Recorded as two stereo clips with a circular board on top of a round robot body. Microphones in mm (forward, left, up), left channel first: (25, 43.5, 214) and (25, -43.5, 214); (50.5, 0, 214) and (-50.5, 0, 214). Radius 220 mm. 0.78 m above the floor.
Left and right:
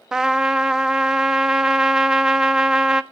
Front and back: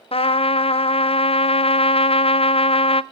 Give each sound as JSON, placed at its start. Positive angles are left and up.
{"t": 0.1, "sound": "a trumpet", "azimuth_deg": -5, "distance_m": 0.7}